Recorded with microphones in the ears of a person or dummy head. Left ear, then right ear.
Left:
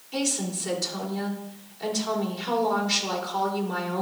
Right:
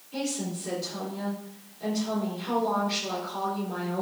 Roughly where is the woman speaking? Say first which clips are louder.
Left 4 dB; left.